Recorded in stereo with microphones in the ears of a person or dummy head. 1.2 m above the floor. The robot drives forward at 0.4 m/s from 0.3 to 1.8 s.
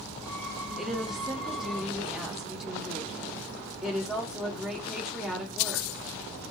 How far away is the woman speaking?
About 0.7 m.